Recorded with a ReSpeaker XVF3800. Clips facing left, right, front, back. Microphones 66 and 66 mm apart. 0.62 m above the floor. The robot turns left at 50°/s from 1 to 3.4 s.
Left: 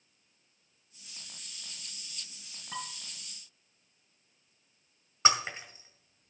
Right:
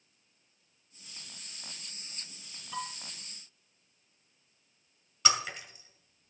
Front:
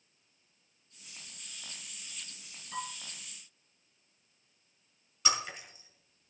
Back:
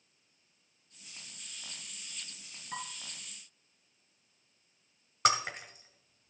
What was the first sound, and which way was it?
Dishes clattering, 125° left.